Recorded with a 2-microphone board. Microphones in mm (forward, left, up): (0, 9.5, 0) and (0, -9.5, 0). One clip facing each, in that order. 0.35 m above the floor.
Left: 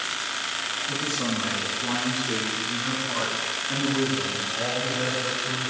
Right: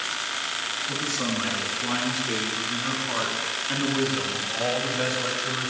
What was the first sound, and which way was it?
A man speaking, 30° right (ahead or behind).